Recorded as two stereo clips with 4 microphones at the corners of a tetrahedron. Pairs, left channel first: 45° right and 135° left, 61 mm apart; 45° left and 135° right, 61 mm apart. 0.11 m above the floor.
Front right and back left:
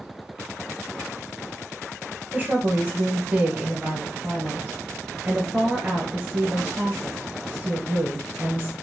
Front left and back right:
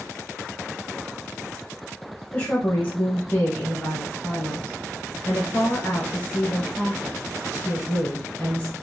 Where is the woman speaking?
100° left, 1.5 m.